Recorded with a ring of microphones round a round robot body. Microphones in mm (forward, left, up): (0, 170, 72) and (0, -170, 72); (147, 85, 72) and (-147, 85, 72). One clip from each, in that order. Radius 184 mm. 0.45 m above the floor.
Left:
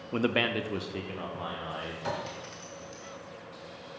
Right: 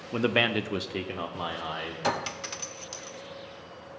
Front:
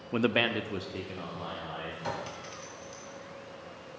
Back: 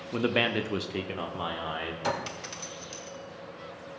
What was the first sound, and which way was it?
A man speaking, 10° right.